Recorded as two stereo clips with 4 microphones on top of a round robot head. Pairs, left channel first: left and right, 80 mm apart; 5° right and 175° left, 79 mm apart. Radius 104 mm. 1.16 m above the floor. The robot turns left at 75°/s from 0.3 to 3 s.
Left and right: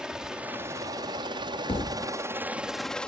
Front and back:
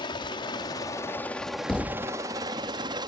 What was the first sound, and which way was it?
A helicopter, 10° right.